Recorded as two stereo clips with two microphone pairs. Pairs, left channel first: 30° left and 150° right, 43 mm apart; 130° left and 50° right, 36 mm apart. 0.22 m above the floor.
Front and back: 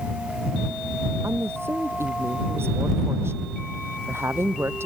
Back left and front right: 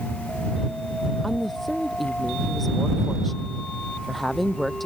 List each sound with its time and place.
1.2 s a woman speaking: 145° right